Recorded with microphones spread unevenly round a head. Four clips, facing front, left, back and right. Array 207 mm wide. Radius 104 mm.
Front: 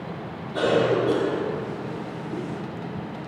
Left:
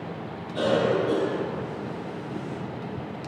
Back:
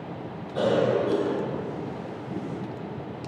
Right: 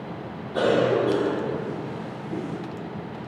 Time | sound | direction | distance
0.5 | a cough | 75° right | 1.8 m